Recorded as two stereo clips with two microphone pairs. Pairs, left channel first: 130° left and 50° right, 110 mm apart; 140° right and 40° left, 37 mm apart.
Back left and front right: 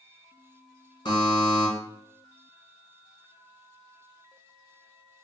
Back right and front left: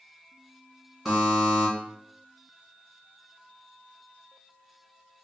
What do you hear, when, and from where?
1.1 s a buzzer: 130° left, 1.7 m